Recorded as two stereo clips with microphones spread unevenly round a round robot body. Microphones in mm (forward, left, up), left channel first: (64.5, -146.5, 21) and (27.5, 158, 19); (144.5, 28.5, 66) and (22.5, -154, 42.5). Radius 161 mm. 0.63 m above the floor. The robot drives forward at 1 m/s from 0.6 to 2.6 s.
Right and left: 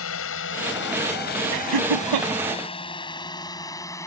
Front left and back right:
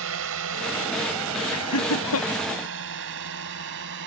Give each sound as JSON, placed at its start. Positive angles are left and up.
{"t": 0.0, "sound": "a drone", "azimuth_deg": -130}
{"t": 1.5, "sound": "laughter", "azimuth_deg": 80}